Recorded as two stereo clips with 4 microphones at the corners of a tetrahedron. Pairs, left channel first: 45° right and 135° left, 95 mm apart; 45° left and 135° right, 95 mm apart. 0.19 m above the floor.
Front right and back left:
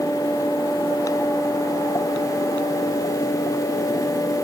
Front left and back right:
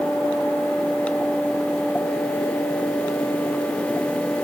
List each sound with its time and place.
Only background noise.